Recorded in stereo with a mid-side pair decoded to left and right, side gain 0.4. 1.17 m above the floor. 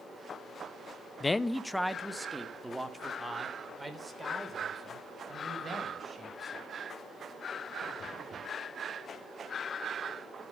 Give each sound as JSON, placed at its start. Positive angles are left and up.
{"t": 1.2, "sound": "a man speaking", "azimuth_deg": 30, "distance_m": 0.6}